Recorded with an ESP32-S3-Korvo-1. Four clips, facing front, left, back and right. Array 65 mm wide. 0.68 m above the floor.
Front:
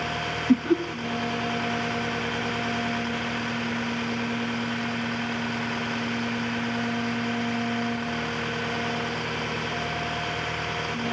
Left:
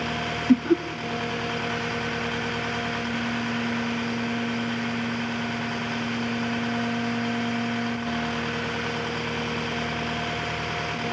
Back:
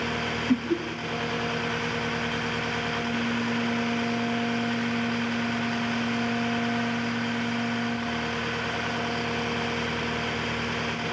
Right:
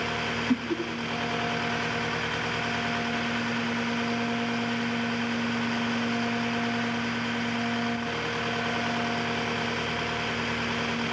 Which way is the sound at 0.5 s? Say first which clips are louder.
Left 10 dB, front 5 dB; 50° left.